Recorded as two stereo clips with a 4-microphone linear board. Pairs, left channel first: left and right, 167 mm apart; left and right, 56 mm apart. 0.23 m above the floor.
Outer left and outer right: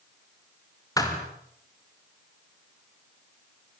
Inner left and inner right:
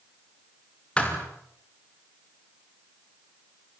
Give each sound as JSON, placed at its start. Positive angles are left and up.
{"t": 1.0, "sound": "a thud", "side_deg": 20, "distance_m": 5.5}